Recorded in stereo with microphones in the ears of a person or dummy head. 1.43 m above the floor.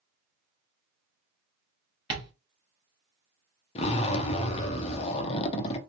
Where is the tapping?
25° right (ahead or behind), 1.1 m.